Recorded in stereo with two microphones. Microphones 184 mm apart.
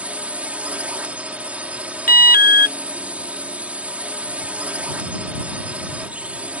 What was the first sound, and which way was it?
A drone, 10° right (ahead or behind).